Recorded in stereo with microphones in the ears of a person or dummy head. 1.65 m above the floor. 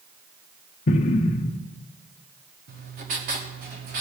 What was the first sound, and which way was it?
An explosion, 40° left (ahead or behind).